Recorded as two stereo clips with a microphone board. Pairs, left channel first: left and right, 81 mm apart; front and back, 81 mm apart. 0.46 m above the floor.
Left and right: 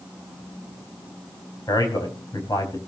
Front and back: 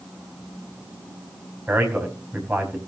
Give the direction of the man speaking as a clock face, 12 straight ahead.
8 o'clock.